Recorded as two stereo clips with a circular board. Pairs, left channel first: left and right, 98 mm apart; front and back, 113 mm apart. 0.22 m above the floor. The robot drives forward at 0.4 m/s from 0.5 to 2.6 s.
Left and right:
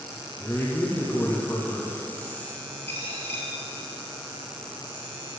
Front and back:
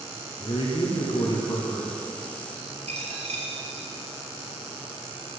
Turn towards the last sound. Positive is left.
turn(degrees=160)